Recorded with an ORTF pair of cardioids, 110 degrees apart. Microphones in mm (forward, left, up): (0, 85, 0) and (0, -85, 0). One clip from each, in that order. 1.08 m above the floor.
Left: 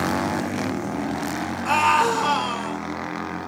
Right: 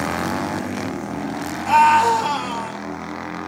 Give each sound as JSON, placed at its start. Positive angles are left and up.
{"t": 1.6, "sound": "a scream", "azimuth_deg": 30, "distance_m": 5.0}